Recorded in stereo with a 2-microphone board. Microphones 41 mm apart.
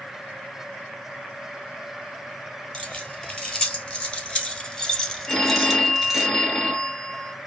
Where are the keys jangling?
30° left (ahead or behind), 1.7 m; by 6.3 s 10° right (ahead or behind), 1.1 m.